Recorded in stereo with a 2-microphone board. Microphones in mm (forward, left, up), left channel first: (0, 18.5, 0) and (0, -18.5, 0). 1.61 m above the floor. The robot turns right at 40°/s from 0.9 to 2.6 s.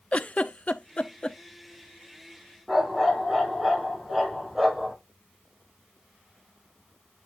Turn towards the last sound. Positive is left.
turn(degrees=-5)  # may be behind; listen again after turning